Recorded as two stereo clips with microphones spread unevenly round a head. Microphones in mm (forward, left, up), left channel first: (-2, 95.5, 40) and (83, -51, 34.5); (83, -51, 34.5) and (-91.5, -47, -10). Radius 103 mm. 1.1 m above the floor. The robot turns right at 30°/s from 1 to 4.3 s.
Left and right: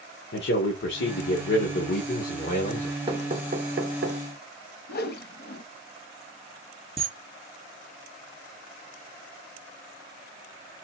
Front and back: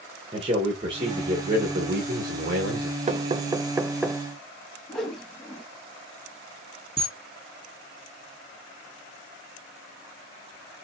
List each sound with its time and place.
0.3 s a man speaking: 120° left, 1.3 m; by 3.0 s straight behind, 1.3 m
3.1 s knocking: 130° right, 0.7 m; by 4.2 s 95° right, 0.7 m
4.9 s a whoosh: 85° left, 0.8 m
7.0 s a camera shutter: 120° right, 2.0 m